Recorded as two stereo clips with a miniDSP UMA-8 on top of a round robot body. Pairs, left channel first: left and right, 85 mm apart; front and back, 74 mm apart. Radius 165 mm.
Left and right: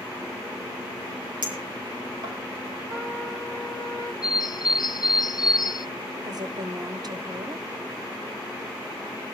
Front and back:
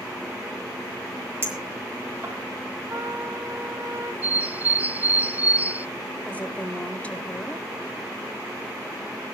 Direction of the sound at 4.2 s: 120° left.